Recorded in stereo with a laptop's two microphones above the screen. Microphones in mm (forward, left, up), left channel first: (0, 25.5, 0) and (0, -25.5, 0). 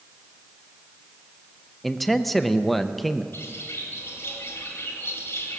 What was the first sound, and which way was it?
A man speaking, centre (ahead or behind).